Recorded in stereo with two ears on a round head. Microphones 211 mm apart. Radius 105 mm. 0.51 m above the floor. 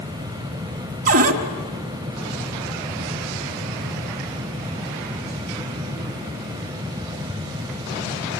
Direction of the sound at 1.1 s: 40° right (ahead or behind).